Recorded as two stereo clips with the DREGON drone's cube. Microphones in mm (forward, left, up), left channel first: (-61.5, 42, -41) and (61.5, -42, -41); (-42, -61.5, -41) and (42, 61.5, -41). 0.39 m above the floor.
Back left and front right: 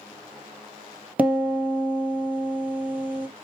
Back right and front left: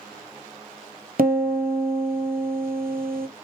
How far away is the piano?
About 1.3 m.